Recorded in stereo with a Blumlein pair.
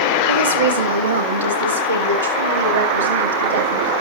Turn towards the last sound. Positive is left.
turn(degrees=-70)